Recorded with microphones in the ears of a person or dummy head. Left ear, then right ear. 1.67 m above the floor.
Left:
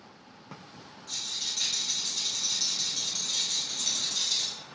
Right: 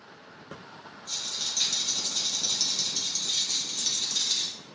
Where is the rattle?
80° right, 1.4 m.